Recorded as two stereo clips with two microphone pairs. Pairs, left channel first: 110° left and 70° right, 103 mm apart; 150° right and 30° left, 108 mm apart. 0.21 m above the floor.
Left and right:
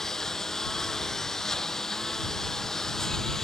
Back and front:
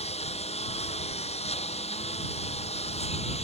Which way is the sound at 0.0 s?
165° right.